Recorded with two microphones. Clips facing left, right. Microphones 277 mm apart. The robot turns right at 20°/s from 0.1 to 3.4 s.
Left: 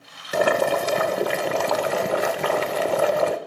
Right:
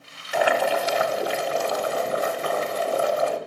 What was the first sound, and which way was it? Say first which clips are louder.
Boiling: left 2 dB; 50° left.